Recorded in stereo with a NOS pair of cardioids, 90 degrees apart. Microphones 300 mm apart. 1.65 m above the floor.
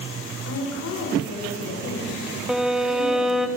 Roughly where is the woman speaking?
Ahead left.